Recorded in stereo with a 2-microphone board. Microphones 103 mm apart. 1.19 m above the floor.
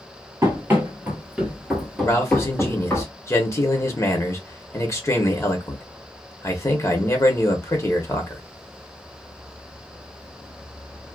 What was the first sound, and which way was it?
Running footsteps, 25° right (ahead or behind).